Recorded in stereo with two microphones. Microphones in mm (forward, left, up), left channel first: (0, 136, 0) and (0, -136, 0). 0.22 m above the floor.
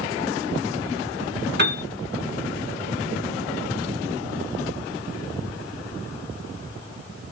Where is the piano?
40° right (ahead or behind), 1.3 m.